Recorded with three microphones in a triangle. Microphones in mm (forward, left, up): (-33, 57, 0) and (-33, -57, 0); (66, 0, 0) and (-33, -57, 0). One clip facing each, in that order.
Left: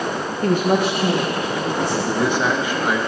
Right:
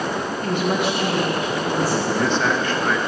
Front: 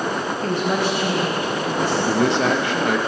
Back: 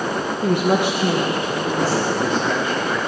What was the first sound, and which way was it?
A woman speaking, 135° left.